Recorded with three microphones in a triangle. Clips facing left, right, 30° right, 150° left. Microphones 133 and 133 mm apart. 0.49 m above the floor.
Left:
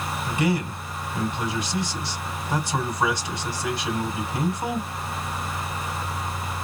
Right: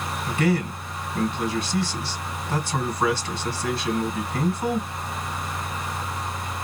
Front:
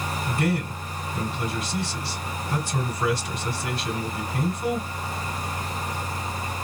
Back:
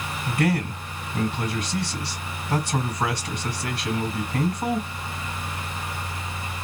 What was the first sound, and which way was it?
A man speaking, 160° left.